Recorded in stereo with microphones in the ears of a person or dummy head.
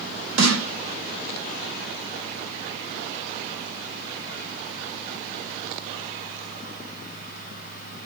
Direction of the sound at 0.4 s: 80° right.